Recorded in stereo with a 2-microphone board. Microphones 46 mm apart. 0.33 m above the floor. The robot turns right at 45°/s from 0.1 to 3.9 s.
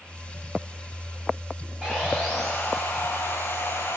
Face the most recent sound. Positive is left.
turn(degrees=80)